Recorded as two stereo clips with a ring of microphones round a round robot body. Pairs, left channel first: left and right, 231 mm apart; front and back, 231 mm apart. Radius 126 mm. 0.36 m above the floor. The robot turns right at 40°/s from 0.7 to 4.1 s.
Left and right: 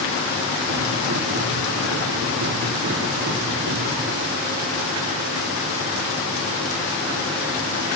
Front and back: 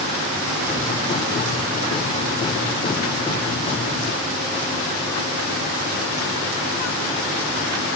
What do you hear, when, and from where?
Only background noise.